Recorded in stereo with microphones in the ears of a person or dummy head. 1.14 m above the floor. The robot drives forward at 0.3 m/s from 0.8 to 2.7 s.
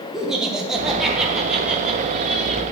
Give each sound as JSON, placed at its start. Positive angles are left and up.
{"t": 0.1, "sound": "laughter", "side_deg": 0, "distance_m": 0.9}